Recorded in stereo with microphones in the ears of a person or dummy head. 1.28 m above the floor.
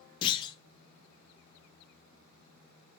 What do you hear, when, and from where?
0.2 s a clunk: 25° left (ahead or behind), 0.6 m